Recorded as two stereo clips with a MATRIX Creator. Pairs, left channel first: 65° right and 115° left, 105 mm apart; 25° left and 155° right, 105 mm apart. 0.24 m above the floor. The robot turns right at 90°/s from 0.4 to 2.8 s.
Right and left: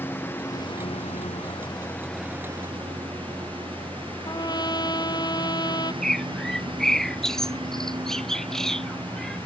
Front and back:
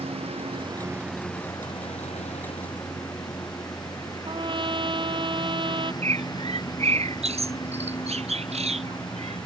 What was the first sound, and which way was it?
A lawn mower, 135° right.